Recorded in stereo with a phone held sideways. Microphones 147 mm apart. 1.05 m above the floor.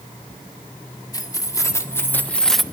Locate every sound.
1.1 s keys jangling: 25° left (ahead or behind), 1.7 m; by 2.6 s centre (ahead or behind), 0.7 m